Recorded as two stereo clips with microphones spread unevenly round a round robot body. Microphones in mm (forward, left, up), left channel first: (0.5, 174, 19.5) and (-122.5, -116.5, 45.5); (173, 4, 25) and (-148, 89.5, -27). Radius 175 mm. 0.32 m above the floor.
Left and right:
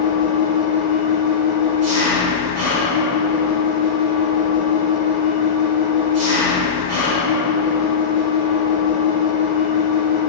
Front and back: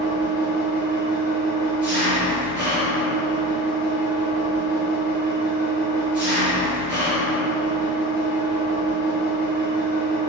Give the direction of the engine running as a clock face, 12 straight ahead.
3 o'clock.